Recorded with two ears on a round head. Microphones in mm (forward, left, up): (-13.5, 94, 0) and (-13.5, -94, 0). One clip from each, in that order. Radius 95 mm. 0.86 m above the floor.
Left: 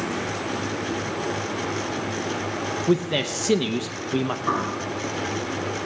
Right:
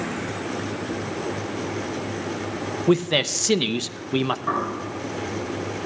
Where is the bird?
10° left (ahead or behind), 6 m.